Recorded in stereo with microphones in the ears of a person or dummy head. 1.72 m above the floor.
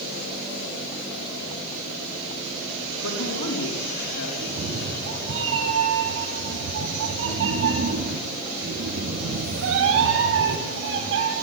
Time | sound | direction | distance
3.0 | a man speaking | 75° left (ahead or behind) | 5 m
4.4 | a cat meowing | 65° right (ahead or behind) | 4.5 m